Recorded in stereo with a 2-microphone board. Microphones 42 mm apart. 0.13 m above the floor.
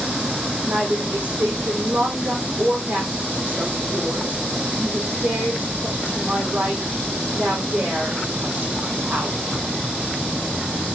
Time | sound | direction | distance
0.7 | a woman speaking | 35° right (ahead or behind) | 5 m